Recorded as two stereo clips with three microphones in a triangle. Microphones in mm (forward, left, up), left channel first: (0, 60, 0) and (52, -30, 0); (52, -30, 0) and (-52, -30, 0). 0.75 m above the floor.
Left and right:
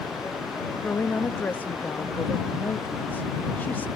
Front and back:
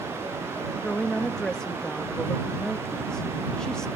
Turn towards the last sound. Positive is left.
turn(degrees=75)